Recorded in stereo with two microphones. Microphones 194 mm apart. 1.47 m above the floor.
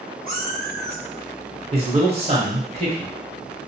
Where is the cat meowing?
50° right (ahead or behind), 1.3 m; by 1.6 s 10° right (ahead or behind), 1.0 m.